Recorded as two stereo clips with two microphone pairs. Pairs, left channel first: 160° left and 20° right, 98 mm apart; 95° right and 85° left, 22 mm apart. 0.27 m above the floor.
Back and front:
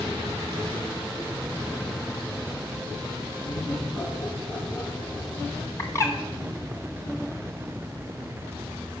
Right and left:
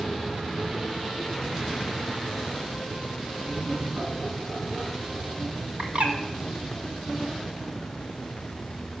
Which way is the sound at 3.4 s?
115° left.